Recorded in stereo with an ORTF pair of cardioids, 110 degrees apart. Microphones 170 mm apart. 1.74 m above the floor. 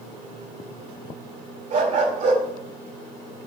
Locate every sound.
1.7 s a dog barking: 55° right, 4 m